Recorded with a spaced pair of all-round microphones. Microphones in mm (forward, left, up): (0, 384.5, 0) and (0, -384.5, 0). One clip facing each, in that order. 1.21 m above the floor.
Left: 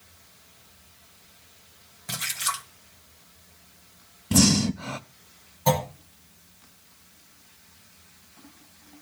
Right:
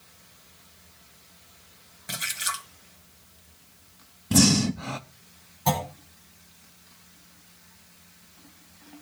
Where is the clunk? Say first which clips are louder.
Left 4 dB; 10° left (ahead or behind), 4.5 m.